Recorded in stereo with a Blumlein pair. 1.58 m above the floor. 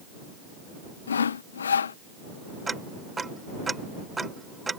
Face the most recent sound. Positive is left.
turn(degrees=-10)